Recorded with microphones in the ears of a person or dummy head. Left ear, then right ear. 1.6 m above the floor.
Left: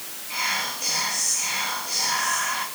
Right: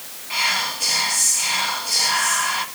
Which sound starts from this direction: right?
Whispering, at 0.3 s.